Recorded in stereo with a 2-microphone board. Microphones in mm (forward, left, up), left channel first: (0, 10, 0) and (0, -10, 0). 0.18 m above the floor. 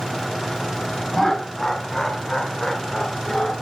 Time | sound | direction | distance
1.1 | laughter | 20° left (ahead or behind) | 1.0 m